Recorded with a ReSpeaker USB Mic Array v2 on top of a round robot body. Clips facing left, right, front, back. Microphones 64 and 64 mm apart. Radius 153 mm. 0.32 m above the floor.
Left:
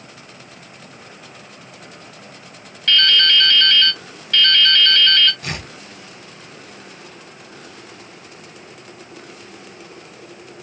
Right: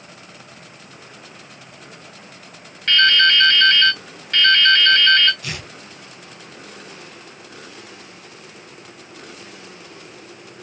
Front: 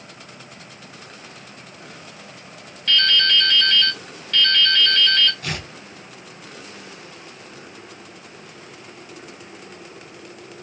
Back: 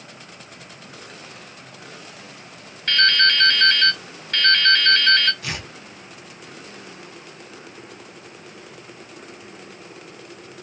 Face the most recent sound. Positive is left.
turn(degrees=45)